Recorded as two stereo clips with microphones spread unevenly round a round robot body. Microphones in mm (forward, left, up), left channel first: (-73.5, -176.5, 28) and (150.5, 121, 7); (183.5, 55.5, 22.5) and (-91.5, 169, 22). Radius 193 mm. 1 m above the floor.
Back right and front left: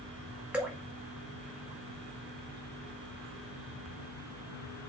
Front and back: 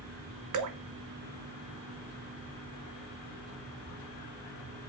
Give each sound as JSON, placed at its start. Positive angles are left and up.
{"t": 0.5, "sound": "dripping", "azimuth_deg": 140, "distance_m": 1.5}